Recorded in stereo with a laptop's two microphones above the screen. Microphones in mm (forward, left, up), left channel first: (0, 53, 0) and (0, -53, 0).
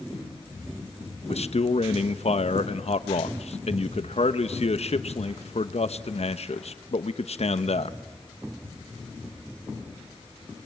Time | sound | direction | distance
1.3 | a man speaking | 70° left (ahead or behind) | 1.0 m